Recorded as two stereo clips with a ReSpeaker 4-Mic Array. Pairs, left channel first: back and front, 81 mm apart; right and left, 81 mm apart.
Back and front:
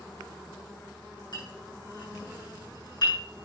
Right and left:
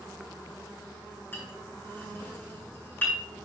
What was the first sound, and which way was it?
A clink, 150° right.